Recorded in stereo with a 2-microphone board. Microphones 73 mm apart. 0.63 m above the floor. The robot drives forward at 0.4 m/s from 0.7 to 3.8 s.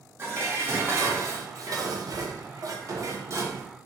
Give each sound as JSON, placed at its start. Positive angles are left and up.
{"t": 0.2, "sound": "dishes clattering", "side_deg": -35, "distance_m": 0.8}